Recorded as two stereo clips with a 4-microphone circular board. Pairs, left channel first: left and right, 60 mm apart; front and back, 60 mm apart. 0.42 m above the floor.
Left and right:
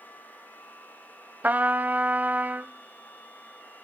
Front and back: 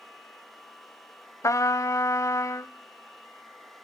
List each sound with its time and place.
1.4 s a trumpet: 30° right, 0.8 m